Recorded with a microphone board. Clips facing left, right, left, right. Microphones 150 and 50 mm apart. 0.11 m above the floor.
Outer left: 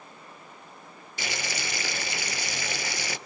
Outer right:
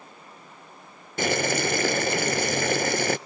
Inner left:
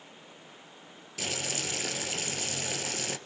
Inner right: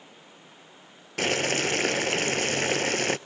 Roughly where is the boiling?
Right.